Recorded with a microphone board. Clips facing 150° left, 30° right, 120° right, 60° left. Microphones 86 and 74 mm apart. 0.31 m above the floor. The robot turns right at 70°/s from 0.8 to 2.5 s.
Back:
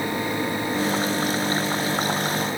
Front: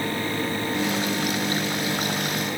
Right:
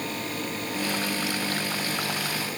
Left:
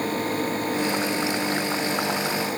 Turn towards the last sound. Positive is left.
No sound to turn to.